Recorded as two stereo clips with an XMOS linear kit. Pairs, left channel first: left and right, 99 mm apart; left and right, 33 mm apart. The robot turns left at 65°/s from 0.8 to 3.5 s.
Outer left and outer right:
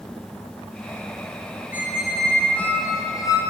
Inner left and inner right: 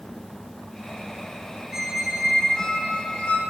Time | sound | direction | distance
1.7 | a squeak | 150° right | 0.7 m